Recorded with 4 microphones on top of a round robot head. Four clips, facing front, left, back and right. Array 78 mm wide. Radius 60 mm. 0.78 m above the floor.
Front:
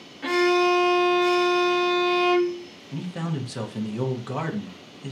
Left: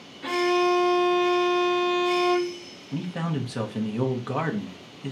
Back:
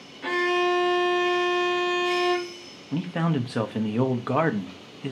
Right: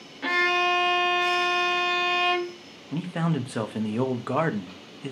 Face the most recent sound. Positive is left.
turn(degrees=-150)